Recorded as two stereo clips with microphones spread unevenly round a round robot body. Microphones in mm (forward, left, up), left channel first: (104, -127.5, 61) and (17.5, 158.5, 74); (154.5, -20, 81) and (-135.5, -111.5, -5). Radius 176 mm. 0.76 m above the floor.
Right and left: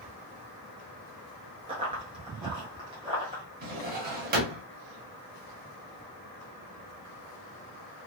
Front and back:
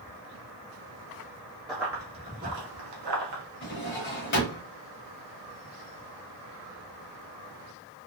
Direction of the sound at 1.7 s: 70° left.